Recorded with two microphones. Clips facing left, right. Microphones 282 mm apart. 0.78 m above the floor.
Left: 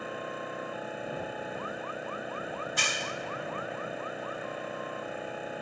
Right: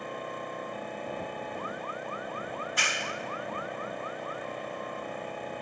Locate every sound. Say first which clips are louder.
0.0 s an engine running: even; 5° left (ahead or behind)
2.6 s a clap: even; 50° left (ahead or behind)